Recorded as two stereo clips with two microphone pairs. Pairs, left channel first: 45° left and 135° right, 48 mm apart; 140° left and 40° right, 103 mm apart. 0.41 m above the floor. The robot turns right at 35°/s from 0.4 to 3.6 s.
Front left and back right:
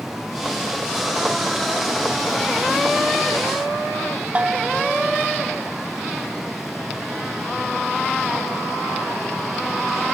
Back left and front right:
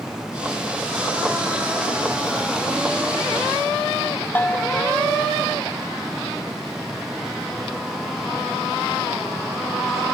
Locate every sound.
4.3 s a bell: 165° right, 0.9 m